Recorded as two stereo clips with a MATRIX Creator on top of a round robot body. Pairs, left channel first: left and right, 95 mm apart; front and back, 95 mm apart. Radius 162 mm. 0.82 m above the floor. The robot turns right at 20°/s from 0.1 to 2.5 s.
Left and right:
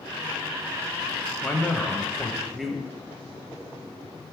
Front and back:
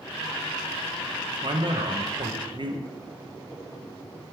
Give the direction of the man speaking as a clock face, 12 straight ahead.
7 o'clock.